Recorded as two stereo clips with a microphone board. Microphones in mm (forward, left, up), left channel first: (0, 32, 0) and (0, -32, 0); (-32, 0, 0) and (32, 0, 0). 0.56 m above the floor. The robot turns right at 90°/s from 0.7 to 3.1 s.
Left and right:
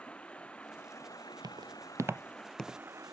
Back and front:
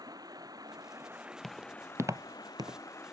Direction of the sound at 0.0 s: 15° left.